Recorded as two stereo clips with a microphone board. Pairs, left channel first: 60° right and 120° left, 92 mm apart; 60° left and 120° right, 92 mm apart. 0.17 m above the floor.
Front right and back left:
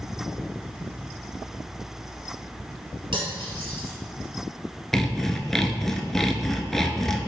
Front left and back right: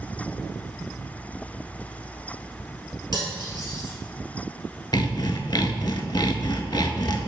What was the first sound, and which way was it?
Cutlery clinking, 95° left.